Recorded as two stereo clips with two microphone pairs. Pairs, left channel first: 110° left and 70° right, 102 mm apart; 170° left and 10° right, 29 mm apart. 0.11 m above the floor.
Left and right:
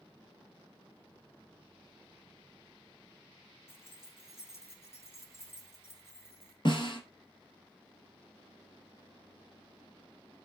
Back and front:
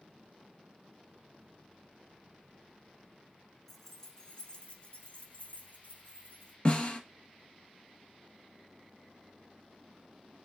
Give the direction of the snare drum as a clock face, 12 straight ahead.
8 o'clock.